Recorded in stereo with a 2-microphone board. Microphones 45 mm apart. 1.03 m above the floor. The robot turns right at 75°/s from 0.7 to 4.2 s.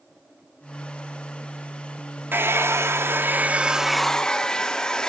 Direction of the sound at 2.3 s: 125° right.